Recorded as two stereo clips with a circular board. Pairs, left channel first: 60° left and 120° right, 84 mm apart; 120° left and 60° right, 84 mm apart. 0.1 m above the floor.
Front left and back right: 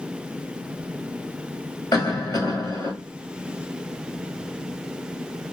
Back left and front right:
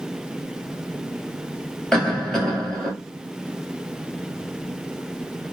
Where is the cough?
35° left, 1.7 m.